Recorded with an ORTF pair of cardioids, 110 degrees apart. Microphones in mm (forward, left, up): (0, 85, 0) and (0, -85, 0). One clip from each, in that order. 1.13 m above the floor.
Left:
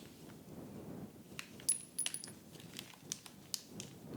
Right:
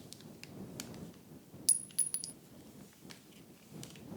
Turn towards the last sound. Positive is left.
turn(degrees=-25)